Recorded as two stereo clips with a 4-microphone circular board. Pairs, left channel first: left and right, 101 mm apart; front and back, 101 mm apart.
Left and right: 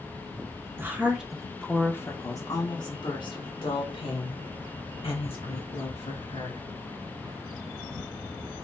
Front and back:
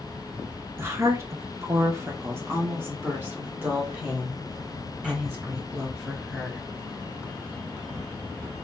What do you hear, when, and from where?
0.8 s a woman speaking: 140° right, 0.9 m; by 6.6 s 100° left, 3 m